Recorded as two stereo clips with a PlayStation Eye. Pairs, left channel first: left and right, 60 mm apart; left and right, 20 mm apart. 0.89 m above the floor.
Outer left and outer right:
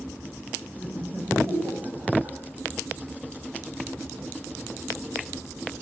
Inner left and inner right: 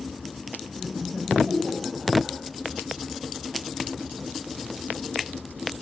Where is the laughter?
35° right (ahead or behind), 4.5 m; by 2.4 s 55° right (ahead or behind), 6 m.